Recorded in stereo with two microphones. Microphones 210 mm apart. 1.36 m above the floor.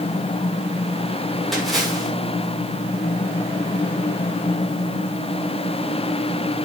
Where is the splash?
Centre (ahead or behind), 5.5 m.